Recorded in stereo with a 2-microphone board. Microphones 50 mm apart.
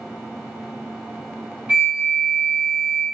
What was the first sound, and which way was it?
A flute, 25° right (ahead or behind).